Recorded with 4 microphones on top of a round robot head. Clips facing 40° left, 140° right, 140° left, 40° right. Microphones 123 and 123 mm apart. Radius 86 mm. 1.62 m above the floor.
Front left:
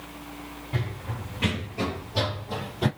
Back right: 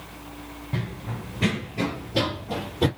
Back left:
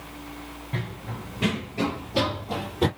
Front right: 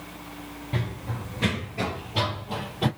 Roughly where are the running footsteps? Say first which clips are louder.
Back right 1 dB, front right 2 dB; right.